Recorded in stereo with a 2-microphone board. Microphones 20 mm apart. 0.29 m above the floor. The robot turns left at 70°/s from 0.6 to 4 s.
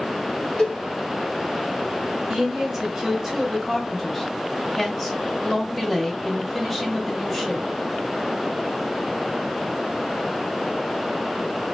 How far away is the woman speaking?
About 1.5 m.